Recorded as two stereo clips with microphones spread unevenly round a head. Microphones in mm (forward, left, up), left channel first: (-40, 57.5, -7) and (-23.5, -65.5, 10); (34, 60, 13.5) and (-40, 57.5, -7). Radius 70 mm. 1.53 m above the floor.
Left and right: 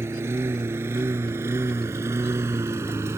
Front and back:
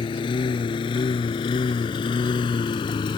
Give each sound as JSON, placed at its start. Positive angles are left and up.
{"t": 0.0, "sound": "a lawn mower", "azimuth_deg": -10}